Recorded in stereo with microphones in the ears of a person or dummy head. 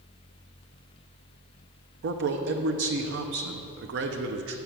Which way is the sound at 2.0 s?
70° right (ahead or behind).